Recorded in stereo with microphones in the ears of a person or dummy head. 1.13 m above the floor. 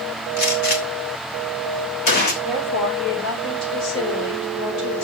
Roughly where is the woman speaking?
Left.